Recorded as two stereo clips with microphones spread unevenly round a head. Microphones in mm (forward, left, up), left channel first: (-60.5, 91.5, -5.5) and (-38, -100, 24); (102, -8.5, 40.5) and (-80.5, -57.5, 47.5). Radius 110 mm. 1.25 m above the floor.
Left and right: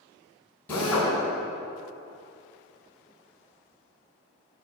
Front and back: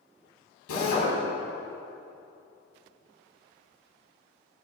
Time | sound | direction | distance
0.7 | a drill | 15° left | 6 m